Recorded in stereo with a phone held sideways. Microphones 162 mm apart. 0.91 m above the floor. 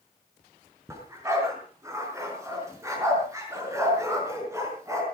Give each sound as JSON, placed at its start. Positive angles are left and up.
{"t": 0.9, "sound": "a dog barking", "side_deg": -20, "distance_m": 4.5}